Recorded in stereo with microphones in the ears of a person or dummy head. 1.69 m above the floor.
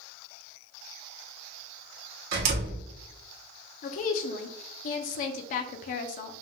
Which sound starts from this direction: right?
A door slam, at 2.3 s.